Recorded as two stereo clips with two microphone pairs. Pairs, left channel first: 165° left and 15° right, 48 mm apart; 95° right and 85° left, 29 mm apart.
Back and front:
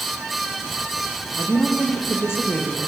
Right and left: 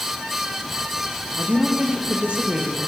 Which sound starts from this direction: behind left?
A woman speaking, at 1.4 s.